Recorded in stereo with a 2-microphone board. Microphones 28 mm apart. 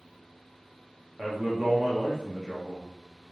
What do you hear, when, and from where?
1.2 s a man speaking: 10° left (ahead or behind), 0.8 m